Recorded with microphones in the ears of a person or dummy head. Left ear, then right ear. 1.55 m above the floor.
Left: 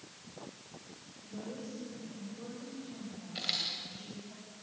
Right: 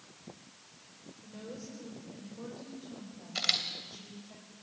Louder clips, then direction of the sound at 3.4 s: Right 4 dB; 45° right (ahead or behind).